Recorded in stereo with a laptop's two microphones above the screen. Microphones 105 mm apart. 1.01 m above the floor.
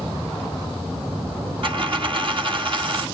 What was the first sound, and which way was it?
A dropped coin, 55° right (ahead or behind).